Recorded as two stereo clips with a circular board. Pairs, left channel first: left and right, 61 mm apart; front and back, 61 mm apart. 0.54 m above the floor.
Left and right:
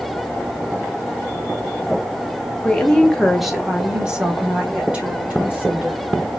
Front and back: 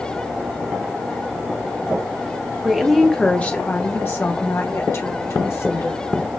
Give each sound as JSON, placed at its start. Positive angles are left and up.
{"t": 2.6, "sound": "a woman speaking", "azimuth_deg": 120, "distance_m": 0.8}